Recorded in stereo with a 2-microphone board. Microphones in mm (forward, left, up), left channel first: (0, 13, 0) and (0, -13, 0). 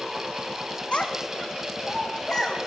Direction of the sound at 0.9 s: 45° left (ahead or behind).